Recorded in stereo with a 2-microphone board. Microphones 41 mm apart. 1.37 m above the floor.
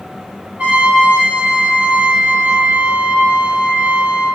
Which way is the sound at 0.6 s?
35° right (ahead or behind).